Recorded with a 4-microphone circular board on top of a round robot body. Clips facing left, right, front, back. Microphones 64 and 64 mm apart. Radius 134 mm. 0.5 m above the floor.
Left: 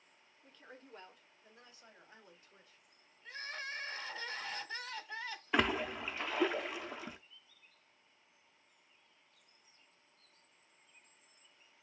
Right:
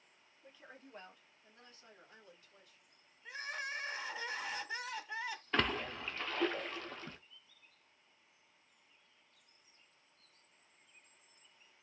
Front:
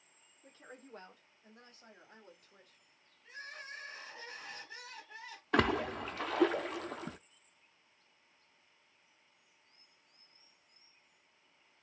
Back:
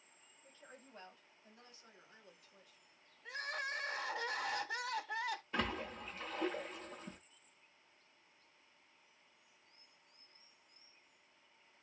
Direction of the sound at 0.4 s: 10° right.